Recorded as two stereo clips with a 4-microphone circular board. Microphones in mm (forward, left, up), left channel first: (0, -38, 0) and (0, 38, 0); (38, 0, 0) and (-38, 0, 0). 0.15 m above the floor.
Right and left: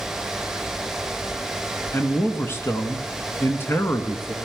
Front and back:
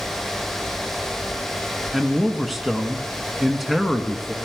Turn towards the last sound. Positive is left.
turn(degrees=-90)